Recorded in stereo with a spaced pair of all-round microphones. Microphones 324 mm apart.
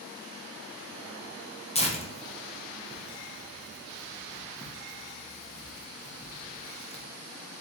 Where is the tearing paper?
20° left (ahead or behind), 0.7 m.